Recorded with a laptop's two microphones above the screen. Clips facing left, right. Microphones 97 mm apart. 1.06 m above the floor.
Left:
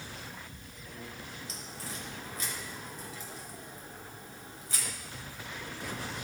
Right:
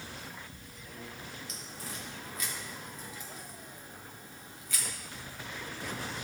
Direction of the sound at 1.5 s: 35° left (ahead or behind).